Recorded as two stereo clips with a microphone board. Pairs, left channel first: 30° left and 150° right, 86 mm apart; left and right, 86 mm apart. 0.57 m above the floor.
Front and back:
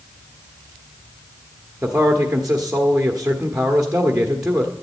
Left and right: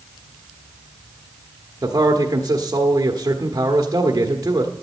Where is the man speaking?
70° right, 1.2 m.